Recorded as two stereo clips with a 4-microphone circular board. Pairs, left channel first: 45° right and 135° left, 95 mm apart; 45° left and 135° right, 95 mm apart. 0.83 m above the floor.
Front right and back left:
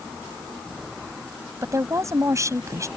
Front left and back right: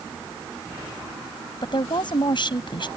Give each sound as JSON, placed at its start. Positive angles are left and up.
{"t": 1.6, "sound": "a woman speaking", "azimuth_deg": 80}